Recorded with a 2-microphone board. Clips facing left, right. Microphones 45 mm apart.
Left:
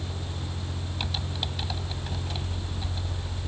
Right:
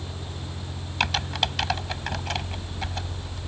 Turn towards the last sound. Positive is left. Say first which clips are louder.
# right 10 dB
turn(degrees=-85)